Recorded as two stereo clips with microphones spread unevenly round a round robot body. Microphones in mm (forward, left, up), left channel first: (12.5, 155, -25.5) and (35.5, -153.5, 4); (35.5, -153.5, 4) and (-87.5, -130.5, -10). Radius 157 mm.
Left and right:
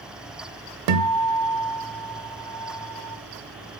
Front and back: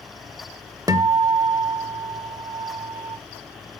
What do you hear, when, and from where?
0.9 s a guitar: 120° right, 0.5 m